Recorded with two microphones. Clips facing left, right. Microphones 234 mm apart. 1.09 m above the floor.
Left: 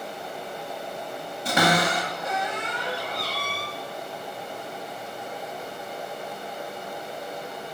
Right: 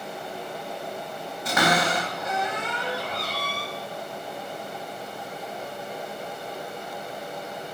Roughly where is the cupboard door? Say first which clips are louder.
Left 1 dB; left.